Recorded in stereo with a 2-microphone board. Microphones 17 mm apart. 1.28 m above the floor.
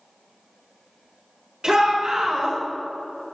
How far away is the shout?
About 2.5 m.